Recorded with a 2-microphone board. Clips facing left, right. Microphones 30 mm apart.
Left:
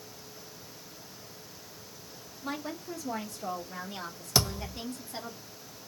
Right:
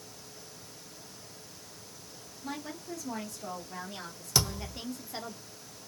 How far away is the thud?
About 1.3 m.